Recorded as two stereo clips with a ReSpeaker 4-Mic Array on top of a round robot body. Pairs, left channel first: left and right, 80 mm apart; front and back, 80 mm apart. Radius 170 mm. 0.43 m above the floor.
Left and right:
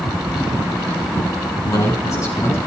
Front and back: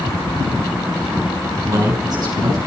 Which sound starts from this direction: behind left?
A man speaking, at 1.6 s.